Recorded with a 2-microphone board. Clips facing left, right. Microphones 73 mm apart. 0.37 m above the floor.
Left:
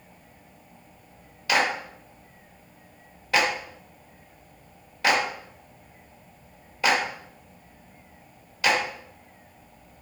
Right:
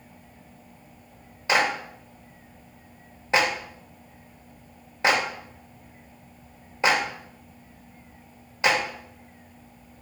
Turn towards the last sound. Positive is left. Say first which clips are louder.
# right 1 dB
turn(degrees=-25)  # may be behind; listen again after turning